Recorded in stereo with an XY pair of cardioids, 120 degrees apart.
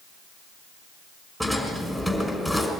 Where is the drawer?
5° right, 5.5 m.